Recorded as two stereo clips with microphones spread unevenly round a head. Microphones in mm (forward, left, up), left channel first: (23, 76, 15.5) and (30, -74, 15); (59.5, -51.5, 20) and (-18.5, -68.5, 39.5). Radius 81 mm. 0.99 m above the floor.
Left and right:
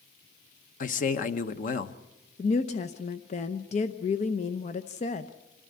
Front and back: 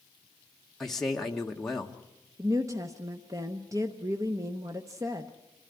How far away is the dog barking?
I don't hear a dog barking.